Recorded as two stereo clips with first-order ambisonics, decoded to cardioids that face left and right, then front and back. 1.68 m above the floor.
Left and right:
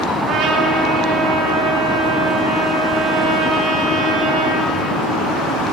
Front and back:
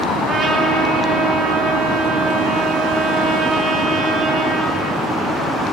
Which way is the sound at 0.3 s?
110° right.